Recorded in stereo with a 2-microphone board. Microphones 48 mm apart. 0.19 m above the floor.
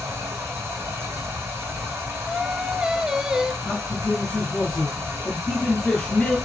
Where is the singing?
15° right (ahead or behind), 0.7 m.